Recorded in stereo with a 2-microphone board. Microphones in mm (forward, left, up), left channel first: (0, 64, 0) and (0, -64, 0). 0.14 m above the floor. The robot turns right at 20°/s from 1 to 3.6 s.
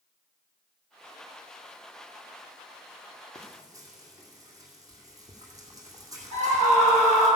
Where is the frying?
20° right (ahead or behind), 2.5 m; by 7.3 s 25° right (ahead or behind), 2.5 m.